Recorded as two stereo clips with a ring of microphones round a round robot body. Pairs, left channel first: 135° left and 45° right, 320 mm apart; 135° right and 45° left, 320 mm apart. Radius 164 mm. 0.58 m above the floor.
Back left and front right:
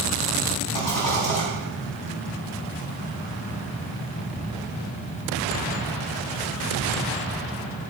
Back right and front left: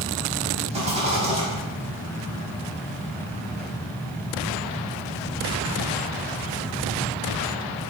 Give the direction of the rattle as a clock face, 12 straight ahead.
8 o'clock.